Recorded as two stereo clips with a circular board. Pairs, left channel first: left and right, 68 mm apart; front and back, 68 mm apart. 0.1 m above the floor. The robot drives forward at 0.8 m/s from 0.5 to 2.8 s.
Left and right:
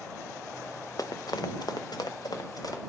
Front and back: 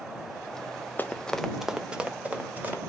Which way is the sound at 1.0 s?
60° left.